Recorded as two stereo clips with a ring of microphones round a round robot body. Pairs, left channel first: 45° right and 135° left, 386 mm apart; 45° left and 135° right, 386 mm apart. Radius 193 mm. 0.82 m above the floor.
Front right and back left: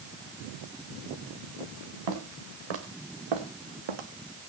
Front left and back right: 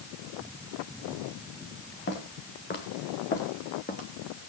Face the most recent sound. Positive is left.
turn(degrees=115)